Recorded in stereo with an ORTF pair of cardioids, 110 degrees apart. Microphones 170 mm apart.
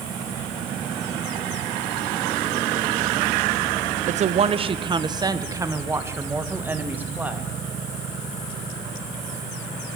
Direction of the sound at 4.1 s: 50° right.